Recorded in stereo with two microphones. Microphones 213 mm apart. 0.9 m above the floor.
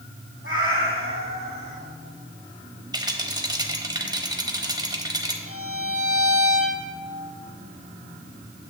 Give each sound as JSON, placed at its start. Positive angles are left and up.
{"t": 0.4, "sound": "a cat meowing", "side_deg": -65, "distance_m": 2.0}
{"t": 2.9, "sound": "a rattle", "side_deg": -20, "distance_m": 1.0}
{"t": 5.5, "sound": "a violin", "side_deg": -70, "distance_m": 1.2}